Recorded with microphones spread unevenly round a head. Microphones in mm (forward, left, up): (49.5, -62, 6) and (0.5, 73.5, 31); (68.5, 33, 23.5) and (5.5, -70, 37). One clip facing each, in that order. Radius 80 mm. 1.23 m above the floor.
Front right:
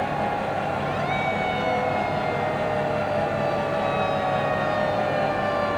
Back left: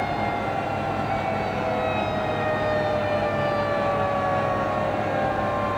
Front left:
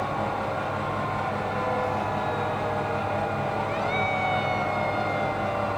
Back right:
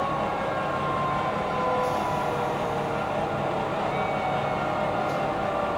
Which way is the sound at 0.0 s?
45° right.